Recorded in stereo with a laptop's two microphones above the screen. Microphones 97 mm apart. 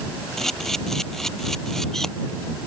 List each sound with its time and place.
0.4 s a camera shutter: 5° left (ahead or behind)